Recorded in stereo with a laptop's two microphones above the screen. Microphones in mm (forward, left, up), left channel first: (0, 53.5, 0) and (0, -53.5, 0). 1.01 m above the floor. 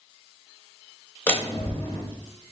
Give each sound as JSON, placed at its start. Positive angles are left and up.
{"t": 1.3, "sound": "a door slam", "side_deg": 20, "distance_m": 0.8}